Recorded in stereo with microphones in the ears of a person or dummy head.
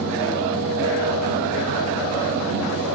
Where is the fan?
70° right (ahead or behind), 1.2 m.